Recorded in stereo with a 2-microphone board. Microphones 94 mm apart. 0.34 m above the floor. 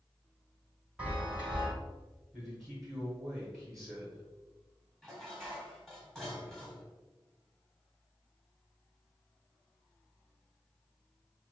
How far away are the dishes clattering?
About 1.3 m.